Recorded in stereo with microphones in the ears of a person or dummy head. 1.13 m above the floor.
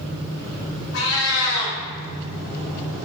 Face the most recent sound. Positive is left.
turn(degrees=70)  # may be behind; listen again after turning